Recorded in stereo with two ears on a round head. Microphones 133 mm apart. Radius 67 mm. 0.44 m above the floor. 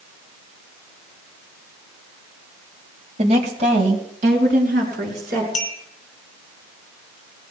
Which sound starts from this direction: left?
A clink, at 5.5 s.